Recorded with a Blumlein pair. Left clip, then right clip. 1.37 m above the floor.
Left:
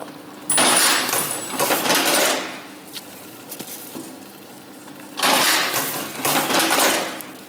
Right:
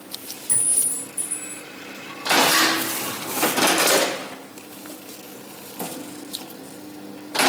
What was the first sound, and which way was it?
A clink, 65° left.